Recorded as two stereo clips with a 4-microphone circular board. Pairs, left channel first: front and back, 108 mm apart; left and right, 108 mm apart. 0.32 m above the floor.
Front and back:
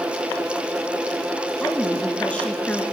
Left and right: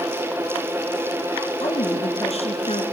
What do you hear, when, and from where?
1.6 s a woman speaking: 80° left, 4.5 m